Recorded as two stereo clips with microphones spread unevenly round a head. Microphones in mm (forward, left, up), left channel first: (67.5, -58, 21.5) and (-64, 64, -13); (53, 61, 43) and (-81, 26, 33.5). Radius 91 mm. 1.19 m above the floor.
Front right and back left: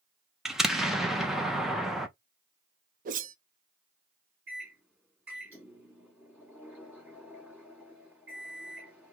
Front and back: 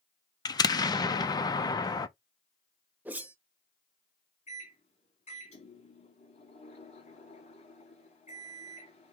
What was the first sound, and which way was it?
An explosion, 65° left.